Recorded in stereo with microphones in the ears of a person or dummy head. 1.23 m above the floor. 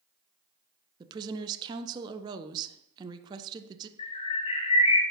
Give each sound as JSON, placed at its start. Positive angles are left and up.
{"t": 1.0, "sound": "a woman speaking", "side_deg": -20, "distance_m": 0.6}
{"t": 4.0, "sound": "a bird", "side_deg": 30, "distance_m": 1.1}